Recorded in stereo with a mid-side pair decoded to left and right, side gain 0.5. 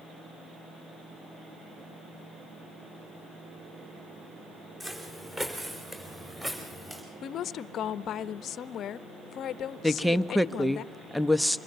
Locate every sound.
4.8 s footsteps: 20° right, 5 m; by 7.0 s 10° right, 7.5 m
7.2 s a woman speaking: 60° left, 0.8 m
9.8 s a woman speaking: 5° left, 0.9 m